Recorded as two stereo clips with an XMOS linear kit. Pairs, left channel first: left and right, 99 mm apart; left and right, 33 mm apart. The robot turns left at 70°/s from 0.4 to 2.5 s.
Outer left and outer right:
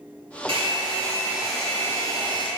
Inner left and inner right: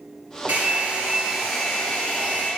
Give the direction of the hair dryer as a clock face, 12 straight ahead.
4 o'clock.